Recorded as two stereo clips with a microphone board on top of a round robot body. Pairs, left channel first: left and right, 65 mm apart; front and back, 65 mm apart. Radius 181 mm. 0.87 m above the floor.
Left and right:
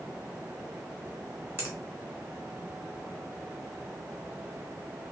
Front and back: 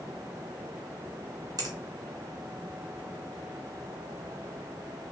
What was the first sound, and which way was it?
A finger snap, 155° right.